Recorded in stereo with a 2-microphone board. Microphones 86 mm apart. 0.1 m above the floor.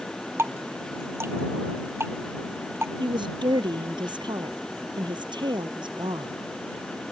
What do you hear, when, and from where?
0.4 s dripping: 30° right (ahead or behind)
3.0 s a woman speaking: 60° right (ahead or behind)